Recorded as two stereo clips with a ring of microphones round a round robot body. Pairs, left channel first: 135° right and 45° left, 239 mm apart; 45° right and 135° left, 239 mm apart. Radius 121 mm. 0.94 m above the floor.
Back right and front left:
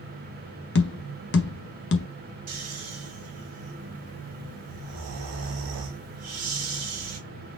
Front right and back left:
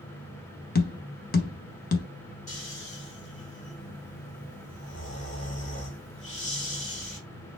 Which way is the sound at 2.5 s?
15° left.